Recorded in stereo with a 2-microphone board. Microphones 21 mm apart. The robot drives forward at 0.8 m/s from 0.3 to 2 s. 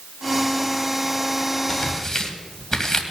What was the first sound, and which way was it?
Tearing paper, 25° left (ahead or behind).